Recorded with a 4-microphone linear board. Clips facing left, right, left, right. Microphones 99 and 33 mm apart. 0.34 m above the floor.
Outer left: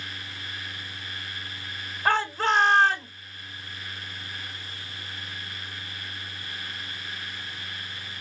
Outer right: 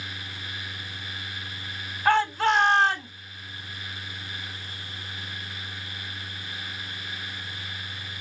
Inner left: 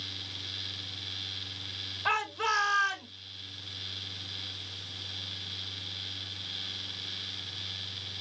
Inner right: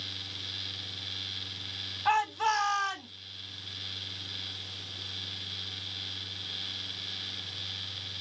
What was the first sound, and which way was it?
A shout, 35° left (ahead or behind).